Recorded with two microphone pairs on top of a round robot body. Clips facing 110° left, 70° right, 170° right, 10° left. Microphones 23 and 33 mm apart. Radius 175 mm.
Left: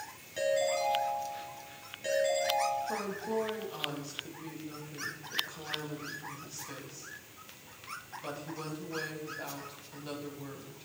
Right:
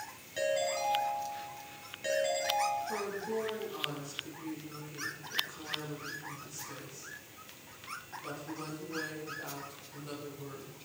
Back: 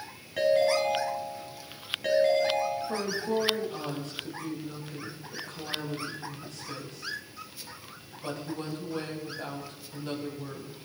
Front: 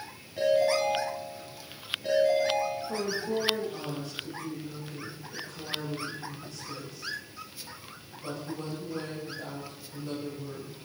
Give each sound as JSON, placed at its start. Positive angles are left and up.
{"t": 0.4, "sound": "a ringtone", "azimuth_deg": -155, "distance_m": 4.0}
{"t": 2.9, "sound": "a woman speaking", "azimuth_deg": 155, "distance_m": 3.5}